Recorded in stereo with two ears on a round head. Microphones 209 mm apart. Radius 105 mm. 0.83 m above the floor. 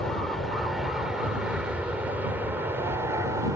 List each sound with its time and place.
0.0 s an aircraft: centre (ahead or behind); by 3.6 s 15° right (ahead or behind)